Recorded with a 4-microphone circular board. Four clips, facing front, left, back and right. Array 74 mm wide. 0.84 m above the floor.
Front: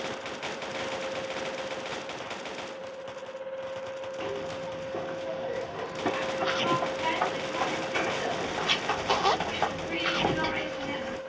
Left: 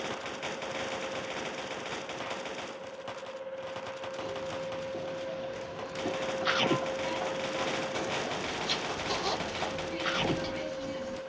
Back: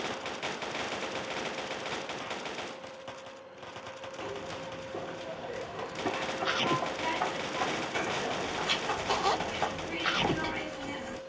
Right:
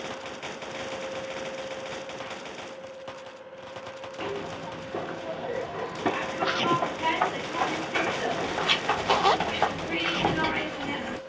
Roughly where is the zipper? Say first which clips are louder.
Right 4 dB, front 3 dB; right.